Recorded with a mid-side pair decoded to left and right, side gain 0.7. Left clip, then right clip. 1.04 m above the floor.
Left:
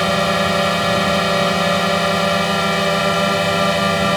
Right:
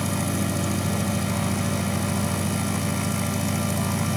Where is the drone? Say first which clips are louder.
Left 12 dB; 55° left.